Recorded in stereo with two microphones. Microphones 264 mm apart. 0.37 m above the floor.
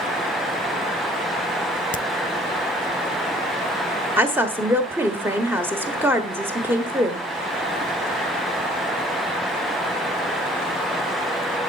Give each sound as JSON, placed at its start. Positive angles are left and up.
{"t": 1.9, "sound": "a crack", "side_deg": 30, "distance_m": 0.6}
{"t": 4.2, "sound": "a woman speaking", "side_deg": -10, "distance_m": 1.1}